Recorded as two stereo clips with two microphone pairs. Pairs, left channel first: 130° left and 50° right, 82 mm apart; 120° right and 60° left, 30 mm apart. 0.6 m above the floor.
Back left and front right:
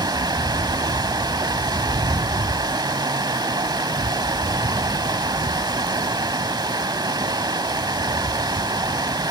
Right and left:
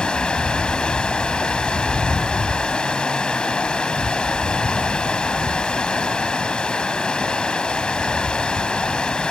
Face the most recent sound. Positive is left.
turn(degrees=-65)